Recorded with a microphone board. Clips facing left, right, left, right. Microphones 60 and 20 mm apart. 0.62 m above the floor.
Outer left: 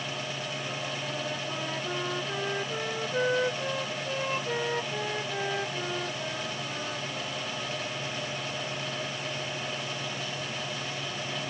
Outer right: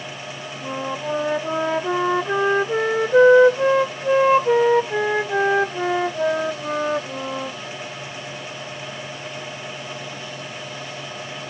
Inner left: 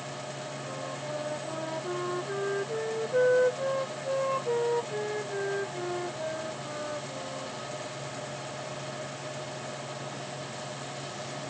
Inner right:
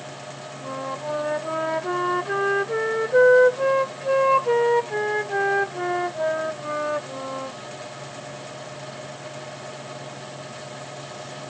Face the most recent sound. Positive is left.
turn(degrees=-80)